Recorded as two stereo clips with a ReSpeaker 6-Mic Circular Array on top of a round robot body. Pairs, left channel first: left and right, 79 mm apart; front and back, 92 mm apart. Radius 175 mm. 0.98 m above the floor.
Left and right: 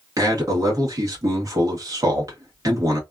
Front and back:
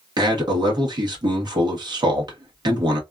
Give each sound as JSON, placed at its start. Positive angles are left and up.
{"t": 0.2, "sound": "a man speaking", "azimuth_deg": -140, "distance_m": 1.3}